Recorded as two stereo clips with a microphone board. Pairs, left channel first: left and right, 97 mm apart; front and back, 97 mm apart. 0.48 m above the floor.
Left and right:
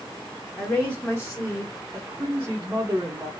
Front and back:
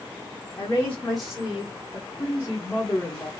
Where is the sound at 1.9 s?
55° right, 0.9 m.